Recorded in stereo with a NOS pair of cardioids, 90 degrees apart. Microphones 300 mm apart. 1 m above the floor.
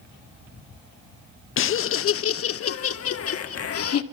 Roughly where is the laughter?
Ahead left.